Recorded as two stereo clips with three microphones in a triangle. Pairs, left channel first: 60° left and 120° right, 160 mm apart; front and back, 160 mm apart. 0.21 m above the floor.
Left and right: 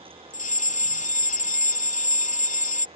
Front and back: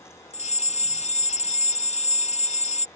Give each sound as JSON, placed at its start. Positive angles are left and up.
{"t": 0.3, "sound": "a fire alarm", "azimuth_deg": 35}